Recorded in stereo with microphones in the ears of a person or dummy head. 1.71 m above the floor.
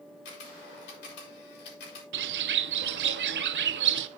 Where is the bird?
55° right (ahead or behind), 0.8 m.